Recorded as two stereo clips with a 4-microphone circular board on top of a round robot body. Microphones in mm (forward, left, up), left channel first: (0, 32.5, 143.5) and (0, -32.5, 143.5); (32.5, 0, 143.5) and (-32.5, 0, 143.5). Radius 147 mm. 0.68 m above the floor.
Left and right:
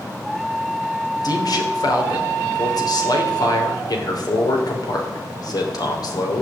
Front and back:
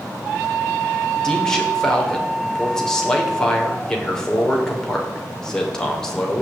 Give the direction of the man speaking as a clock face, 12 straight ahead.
9 o'clock.